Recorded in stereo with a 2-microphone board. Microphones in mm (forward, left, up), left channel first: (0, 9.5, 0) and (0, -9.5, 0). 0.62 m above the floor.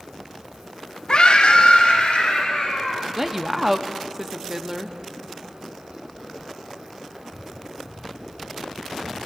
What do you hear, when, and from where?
1.1 s a scream: 45° left (ahead or behind), 1.0 m; by 3.1 s 70° left (ahead or behind), 3.5 m
3.2 s a woman speaking: 15° right (ahead or behind), 0.6 m